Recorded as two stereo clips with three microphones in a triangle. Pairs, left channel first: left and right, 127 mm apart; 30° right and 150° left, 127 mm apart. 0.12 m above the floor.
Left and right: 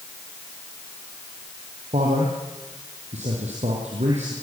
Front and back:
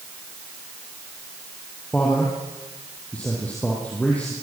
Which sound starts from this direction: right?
A man speaking, at 1.9 s.